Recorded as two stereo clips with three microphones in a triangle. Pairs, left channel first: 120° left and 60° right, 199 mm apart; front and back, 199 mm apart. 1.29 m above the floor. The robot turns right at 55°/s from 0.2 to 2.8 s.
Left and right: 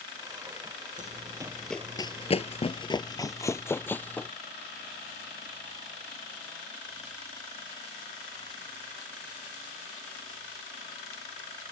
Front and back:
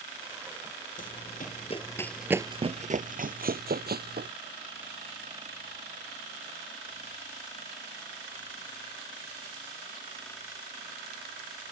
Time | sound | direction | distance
1.0 | running footsteps | 30° right | ?